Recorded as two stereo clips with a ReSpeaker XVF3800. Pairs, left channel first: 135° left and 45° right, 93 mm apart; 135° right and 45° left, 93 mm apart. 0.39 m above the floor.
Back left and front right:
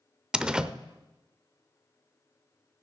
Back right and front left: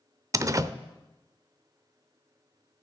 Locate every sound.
0.3 s a door slam: 30° left, 0.6 m